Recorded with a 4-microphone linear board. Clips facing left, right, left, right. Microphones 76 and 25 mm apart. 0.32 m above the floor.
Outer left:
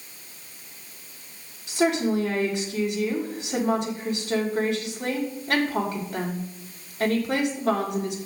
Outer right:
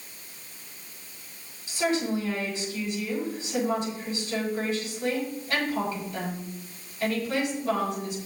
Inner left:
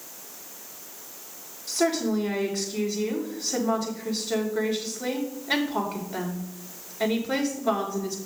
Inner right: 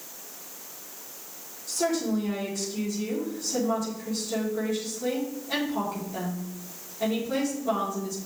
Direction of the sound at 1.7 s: 70° left (ahead or behind).